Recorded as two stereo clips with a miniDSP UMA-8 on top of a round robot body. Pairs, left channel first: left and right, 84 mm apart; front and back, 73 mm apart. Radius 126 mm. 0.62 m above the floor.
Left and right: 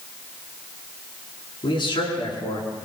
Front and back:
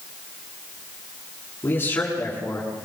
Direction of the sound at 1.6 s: 65° left.